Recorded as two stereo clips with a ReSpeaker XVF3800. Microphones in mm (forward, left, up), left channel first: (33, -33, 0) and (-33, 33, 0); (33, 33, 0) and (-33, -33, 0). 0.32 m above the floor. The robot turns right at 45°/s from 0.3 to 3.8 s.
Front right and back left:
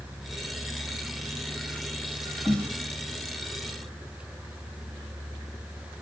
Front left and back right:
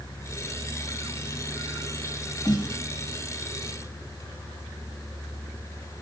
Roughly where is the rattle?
I don't hear a rattle.